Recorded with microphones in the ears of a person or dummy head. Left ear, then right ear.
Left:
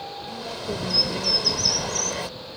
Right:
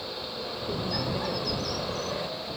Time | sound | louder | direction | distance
0.3 | a bird | left 4 dB | 50° left (ahead or behind) | ?